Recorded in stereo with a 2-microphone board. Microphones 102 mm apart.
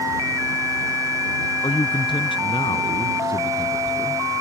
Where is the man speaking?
55° left (ahead or behind).